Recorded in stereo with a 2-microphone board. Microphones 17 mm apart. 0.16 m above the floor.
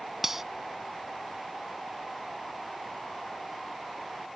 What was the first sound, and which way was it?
Cutlery clinking, 20° right (ahead or behind).